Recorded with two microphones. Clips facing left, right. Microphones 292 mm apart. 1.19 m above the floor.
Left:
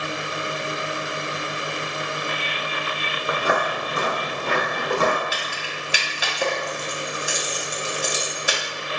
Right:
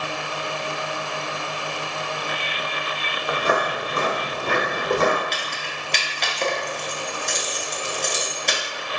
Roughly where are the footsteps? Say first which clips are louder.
Right 1 dB; centre.